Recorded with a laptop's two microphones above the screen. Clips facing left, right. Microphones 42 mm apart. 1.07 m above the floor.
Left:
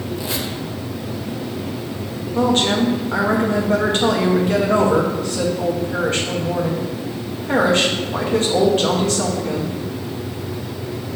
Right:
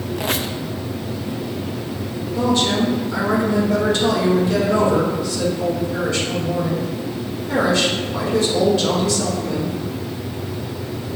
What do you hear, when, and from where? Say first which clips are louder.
0.2 s a squeak: right 2 dB; 65° right (ahead or behind), 0.6 m
2.4 s a woman speaking: left 1 dB; 50° left (ahead or behind), 1.2 m